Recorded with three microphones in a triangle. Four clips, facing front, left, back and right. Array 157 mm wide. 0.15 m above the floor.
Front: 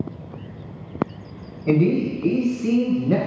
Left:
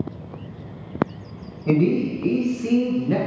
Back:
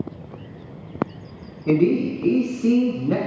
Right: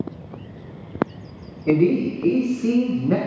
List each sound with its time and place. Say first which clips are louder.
1.7 s a man speaking: right 2 dB, back 1 dB; 140° left, 1.1 m; by 3.2 s 125° right, 1.3 m